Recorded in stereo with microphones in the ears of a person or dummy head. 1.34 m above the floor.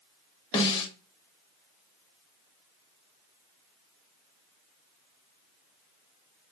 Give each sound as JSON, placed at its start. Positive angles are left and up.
{"t": 0.5, "sound": "a snare drum", "side_deg": 30, "distance_m": 1.1}